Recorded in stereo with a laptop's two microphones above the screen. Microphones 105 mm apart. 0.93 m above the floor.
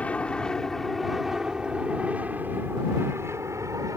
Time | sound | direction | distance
0.0 | an aircraft | 15° left (ahead or behind) | ?